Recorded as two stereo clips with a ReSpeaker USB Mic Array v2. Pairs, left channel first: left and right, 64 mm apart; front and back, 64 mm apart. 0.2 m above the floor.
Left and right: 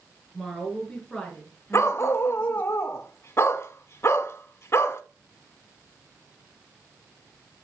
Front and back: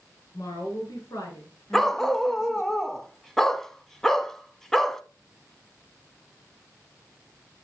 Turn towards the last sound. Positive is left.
turn(degrees=80)